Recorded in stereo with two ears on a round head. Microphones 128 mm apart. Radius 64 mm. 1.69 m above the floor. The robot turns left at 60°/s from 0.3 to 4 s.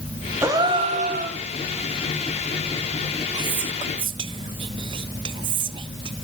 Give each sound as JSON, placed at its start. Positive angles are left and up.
{"t": 0.4, "sound": "a gasp", "azimuth_deg": -15, "distance_m": 1.8}
{"t": 3.3, "sound": "whispering", "side_deg": -30, "distance_m": 0.7}